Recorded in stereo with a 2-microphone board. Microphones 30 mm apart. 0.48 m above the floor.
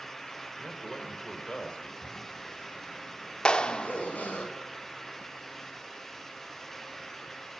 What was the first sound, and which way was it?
A man speaking, 25° left (ahead or behind).